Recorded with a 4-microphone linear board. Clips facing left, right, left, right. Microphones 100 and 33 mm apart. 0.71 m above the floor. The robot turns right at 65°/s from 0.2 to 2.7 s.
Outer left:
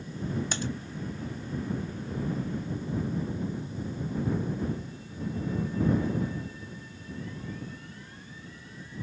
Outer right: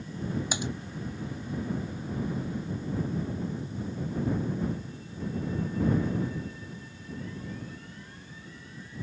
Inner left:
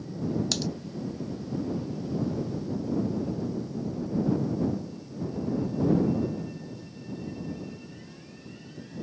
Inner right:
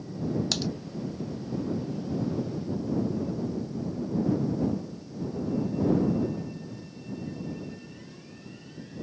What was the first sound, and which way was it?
Typing on a keyboard, 10° right (ahead or behind).